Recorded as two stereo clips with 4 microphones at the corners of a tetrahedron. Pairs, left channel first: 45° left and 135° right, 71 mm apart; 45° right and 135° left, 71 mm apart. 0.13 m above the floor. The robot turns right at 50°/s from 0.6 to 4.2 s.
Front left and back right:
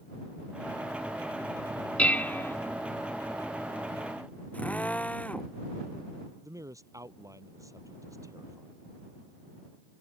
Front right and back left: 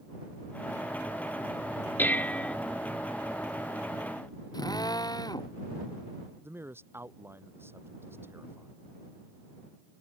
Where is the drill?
25° right.